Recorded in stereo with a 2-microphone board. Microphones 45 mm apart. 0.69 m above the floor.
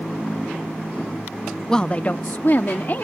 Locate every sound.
1.7 s a woman speaking: 15° left (ahead or behind); by 3.0 s 50° left (ahead or behind)